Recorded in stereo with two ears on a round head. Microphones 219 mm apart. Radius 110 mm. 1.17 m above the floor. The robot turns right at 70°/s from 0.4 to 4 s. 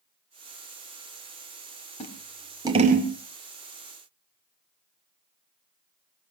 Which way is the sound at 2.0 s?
30° left (ahead or behind).